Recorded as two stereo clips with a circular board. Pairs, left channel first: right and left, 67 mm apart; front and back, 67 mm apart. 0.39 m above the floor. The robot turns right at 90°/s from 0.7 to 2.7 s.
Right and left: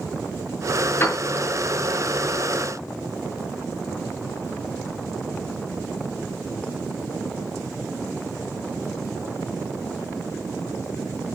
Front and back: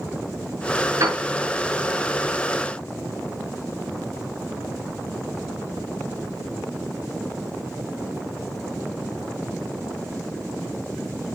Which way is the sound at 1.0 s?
145° right.